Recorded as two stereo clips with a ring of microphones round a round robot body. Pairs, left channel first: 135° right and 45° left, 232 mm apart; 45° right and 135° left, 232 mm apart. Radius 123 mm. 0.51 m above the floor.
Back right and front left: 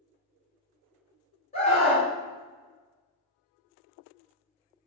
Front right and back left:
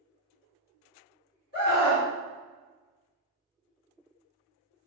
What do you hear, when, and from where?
1.5 s a scream: 80° right, 1.9 m